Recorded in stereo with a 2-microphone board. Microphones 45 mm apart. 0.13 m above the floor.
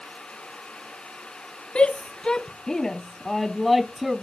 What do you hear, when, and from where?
1.8 s a shout: 25° left (ahead or behind); by 4.2 s 10° right (ahead or behind)